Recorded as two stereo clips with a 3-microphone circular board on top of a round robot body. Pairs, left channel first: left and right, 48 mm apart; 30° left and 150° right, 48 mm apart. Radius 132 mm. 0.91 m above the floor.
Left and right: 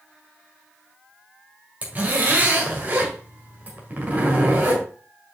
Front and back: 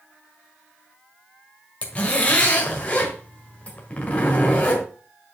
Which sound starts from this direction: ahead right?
A zipper, at 1.8 s.